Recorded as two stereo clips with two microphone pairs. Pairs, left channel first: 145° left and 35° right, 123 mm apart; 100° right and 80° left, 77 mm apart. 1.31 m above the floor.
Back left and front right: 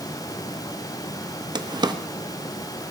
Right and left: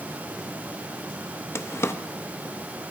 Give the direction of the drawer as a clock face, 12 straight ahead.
2 o'clock.